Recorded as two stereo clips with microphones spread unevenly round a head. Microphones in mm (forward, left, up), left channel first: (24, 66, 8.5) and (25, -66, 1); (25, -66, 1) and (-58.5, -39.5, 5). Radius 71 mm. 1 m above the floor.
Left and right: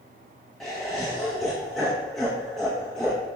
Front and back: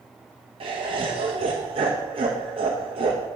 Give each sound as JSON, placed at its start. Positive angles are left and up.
{"t": 0.6, "sound": "laughter", "azimuth_deg": 180, "distance_m": 0.9}